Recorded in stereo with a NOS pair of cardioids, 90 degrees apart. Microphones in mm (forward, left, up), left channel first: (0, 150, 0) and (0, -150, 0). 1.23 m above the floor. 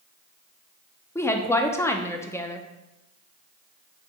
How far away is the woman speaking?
About 0.6 m.